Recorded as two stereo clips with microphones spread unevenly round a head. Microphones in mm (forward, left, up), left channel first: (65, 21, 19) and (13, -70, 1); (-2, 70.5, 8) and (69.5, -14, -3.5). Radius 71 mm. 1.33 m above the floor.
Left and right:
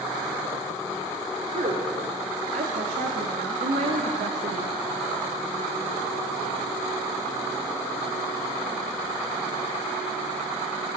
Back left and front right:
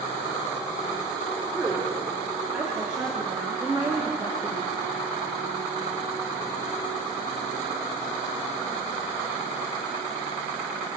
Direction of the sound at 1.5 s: 140° right.